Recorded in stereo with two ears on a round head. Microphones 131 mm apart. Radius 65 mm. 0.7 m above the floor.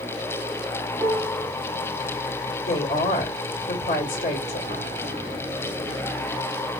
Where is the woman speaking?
55° left (ahead or behind), 2 m.